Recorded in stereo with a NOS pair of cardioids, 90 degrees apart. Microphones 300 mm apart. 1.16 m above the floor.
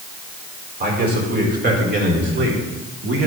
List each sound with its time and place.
0.8 s a man speaking: 30° right, 4 m; by 3.3 s 45° right, 3 m